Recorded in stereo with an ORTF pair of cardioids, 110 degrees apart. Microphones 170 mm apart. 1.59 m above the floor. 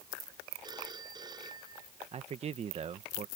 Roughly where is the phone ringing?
Ahead right.